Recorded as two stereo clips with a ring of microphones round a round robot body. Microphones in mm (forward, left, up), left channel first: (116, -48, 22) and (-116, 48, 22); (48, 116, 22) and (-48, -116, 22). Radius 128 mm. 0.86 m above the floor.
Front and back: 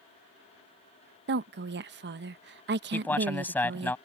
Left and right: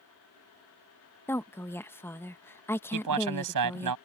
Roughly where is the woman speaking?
Behind left.